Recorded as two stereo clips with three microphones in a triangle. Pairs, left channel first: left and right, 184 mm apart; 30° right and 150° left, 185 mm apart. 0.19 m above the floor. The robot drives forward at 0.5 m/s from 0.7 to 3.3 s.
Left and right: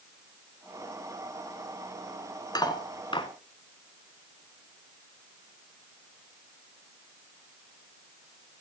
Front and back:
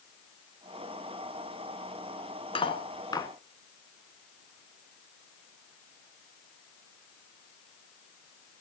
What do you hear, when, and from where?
2.5 s cutlery clinking: 25° left, 1.3 m; by 3.3 s 35° left, 1.0 m